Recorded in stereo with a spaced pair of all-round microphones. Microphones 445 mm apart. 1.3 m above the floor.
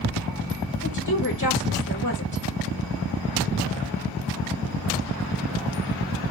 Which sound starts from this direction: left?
A woman speaking, at 0.8 s.